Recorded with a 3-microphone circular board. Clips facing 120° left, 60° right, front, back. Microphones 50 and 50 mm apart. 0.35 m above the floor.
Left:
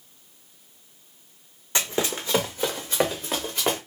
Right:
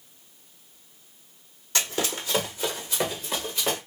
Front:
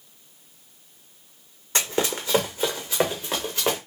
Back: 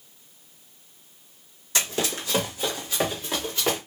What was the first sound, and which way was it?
Running footsteps, 55° left.